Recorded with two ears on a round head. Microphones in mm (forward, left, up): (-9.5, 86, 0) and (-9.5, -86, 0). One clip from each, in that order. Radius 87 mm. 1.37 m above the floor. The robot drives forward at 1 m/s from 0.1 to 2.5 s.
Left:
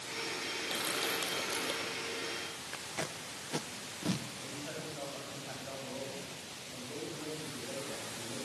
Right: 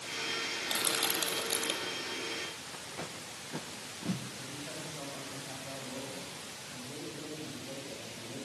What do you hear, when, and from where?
0.7 s crushing: 25° right (ahead or behind), 7 m; by 1.9 s 30° right (ahead or behind), 5.5 m
2.7 s tape being pulled: 75° left (ahead or behind), 1.1 m
4.4 s a man speaking: 65° left (ahead or behind), 8 m